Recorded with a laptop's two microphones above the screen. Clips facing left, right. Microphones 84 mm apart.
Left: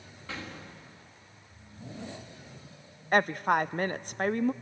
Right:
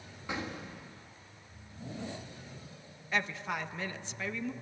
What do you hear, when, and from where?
0.3 s an explosion: 15° right (ahead or behind), 1.5 m
3.1 s a woman speaking: 50° left (ahead or behind), 0.5 m